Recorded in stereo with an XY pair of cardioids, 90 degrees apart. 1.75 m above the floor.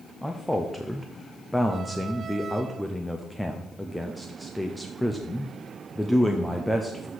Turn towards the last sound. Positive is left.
turn(degrees=5)